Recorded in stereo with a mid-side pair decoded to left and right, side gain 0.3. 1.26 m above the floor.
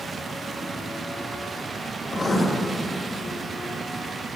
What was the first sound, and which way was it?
Writing, 45° left.